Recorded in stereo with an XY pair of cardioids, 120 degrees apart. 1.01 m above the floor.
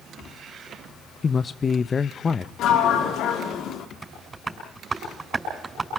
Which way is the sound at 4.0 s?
25° right.